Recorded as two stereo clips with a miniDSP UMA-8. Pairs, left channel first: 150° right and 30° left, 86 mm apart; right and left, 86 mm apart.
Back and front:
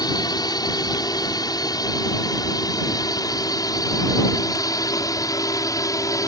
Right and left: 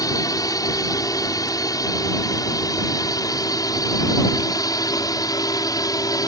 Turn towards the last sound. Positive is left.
turn(degrees=-115)